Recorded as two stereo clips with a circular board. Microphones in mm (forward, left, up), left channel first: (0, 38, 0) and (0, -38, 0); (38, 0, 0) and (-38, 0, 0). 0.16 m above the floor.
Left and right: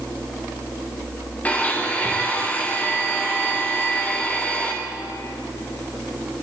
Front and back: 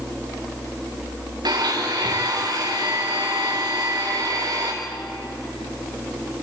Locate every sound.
1.4 s a blender: 160° left, 4.5 m